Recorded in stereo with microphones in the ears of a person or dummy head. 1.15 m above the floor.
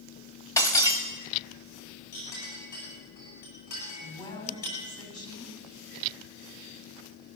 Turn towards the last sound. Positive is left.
turn(degrees=20)  # may be behind; listen again after turning